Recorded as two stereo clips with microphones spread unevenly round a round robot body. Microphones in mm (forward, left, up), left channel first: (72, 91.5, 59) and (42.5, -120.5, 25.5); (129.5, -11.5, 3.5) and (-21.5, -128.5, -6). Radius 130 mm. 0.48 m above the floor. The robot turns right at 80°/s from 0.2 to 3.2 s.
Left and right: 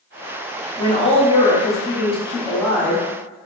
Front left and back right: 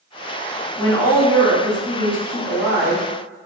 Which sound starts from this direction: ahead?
A woman speaking, at 0.8 s.